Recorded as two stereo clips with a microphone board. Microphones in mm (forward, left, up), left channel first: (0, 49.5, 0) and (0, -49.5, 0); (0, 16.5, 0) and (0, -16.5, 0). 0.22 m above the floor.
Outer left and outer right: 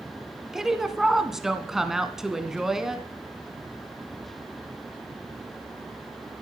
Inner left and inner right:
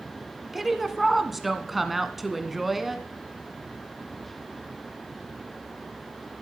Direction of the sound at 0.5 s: 5° right (ahead or behind).